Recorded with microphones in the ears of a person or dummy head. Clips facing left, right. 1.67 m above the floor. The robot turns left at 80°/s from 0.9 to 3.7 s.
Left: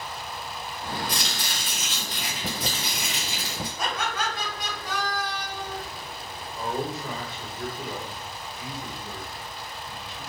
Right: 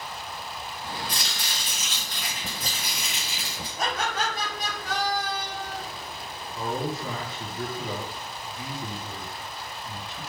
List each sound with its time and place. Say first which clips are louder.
1.1 s chopping: left 3 dB; 25° left (ahead or behind), 1.0 m; by 3.7 s 25° right (ahead or behind), 1.0 m
3.8 s laughter: right 2 dB; 35° right (ahead or behind), 1.6 m
6.5 s a man speaking: even; 40° right (ahead or behind), 1.9 m